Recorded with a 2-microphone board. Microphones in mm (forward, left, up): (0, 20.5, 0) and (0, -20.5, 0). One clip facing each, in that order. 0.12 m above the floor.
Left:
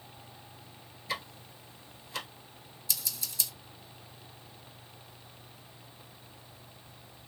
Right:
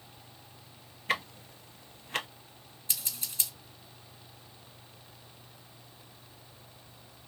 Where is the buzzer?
No buzzer in this recording.